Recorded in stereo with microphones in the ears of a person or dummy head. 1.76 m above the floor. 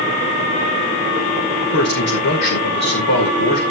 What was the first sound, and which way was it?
A man speaking, 60° left (ahead or behind).